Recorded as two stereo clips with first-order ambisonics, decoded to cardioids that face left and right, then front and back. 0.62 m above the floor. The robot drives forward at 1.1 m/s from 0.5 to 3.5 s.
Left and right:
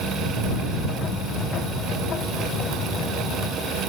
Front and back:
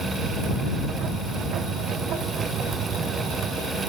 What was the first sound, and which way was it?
Only background noise.